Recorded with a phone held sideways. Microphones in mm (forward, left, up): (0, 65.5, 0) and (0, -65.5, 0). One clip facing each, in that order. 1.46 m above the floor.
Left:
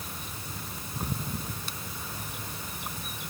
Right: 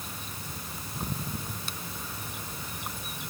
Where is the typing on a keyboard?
No typing on a keyboard in this recording.